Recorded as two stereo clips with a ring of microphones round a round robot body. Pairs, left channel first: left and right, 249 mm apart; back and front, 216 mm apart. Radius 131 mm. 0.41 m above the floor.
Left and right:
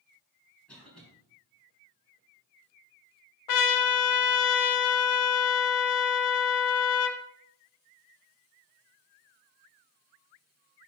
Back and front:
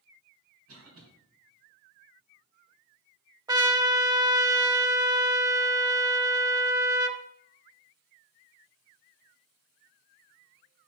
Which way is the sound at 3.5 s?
75° left.